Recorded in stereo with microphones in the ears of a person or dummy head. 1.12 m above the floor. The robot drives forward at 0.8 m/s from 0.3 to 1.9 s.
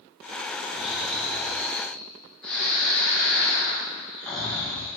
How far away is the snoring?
About 0.7 m.